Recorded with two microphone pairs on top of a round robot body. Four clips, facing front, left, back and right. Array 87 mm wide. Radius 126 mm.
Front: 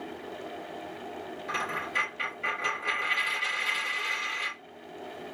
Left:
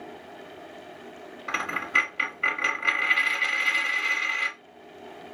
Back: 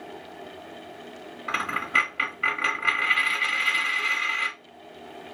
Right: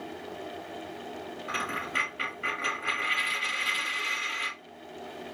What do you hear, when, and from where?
1.5 s a dropped coin: 155° left, 1.6 m